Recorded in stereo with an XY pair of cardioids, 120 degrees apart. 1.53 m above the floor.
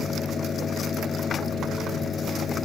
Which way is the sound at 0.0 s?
35° left.